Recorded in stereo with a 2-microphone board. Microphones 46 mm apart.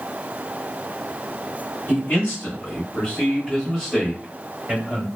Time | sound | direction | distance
1.9 | a man speaking | 45° left (ahead or behind) | 1.4 m